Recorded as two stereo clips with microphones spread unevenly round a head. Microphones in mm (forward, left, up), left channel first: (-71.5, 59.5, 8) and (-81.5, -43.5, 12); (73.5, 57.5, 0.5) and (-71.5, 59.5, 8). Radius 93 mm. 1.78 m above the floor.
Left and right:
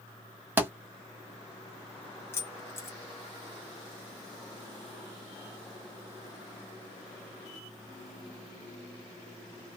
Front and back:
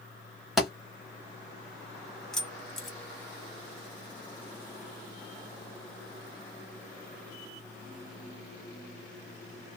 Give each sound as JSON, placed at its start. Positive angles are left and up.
{"t": 0.6, "sound": "a thud", "azimuth_deg": -105, "distance_m": 1.1}
{"t": 2.3, "sound": "keys jangling", "azimuth_deg": 90, "distance_m": 0.9}